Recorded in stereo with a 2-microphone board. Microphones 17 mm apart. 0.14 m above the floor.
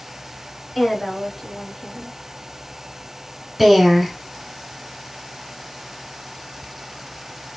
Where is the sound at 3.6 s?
15° right (ahead or behind), 1.4 m.